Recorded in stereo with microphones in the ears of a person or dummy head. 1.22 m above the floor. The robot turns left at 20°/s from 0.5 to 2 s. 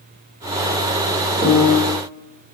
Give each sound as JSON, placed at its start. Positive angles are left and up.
{"t": 1.4, "sound": "a piano", "side_deg": -55, "distance_m": 1.0}